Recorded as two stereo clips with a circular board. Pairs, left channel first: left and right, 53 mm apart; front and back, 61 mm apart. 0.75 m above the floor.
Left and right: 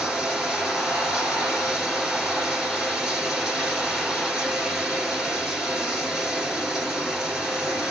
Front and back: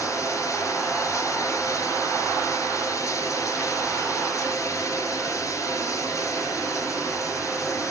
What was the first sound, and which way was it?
Running water, 15° right.